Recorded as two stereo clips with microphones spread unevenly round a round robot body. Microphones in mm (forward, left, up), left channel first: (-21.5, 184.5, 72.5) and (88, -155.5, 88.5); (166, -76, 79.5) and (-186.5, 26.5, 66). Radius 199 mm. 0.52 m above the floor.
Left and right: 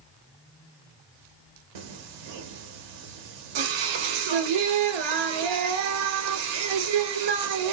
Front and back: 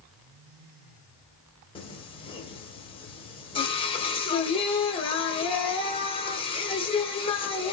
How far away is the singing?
About 0.6 m.